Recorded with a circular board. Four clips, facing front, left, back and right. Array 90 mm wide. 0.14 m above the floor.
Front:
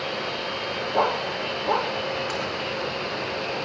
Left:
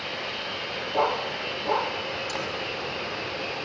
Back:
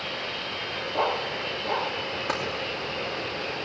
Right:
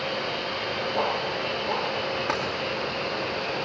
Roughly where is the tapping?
Right.